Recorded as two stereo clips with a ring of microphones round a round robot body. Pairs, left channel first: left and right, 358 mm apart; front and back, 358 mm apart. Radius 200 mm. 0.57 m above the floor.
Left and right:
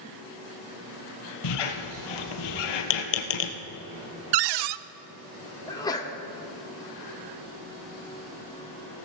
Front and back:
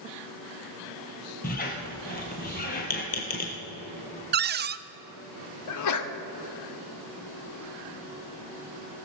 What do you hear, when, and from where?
1.4 s a squeak: 70° left, 1.1 m
4.3 s a cupboard door: 115° right, 0.5 m
5.7 s a sneeze: 15° left, 1.1 m